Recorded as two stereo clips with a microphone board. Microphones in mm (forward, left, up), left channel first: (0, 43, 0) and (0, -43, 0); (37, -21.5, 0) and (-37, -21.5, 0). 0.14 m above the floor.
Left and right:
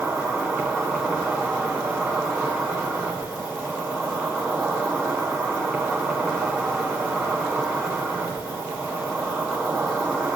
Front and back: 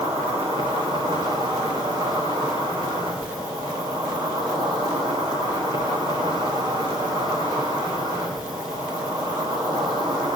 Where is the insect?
175° left, 8 m.